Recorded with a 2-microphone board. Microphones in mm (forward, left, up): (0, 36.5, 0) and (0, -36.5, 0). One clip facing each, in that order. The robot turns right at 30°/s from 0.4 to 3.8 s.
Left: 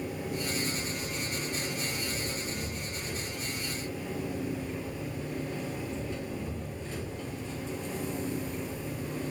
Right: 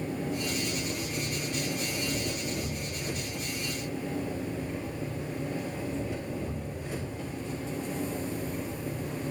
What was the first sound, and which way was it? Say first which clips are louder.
An engine running: right 2 dB; 115° right.